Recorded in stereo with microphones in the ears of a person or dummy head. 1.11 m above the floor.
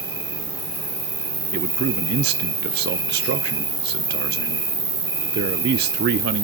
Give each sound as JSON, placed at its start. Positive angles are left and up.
{"t": 0.0, "sound": "an insect", "side_deg": 30, "distance_m": 3.0}
{"t": 1.5, "sound": "a man speaking", "side_deg": -45, "distance_m": 0.6}